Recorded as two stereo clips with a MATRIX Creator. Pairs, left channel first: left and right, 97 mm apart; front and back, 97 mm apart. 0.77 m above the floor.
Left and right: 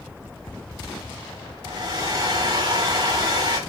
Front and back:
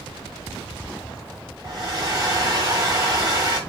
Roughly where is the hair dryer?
Behind right.